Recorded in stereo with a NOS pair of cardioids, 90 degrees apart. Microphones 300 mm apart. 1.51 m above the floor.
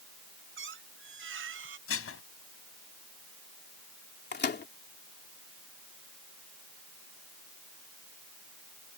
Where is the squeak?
45° right.